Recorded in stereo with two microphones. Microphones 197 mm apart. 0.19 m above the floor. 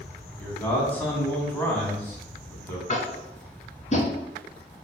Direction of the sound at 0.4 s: 10° left (ahead or behind).